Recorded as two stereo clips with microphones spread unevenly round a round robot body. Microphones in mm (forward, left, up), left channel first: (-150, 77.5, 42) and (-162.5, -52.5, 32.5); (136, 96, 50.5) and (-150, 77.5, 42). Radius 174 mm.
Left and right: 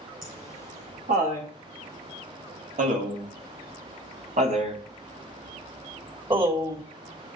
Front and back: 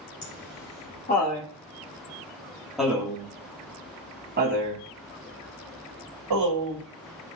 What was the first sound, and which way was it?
Laughter, 55° right.